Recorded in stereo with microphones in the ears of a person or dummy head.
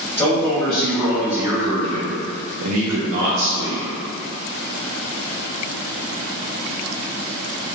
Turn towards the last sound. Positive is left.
turn(degrees=-60)  # may be behind; listen again after turning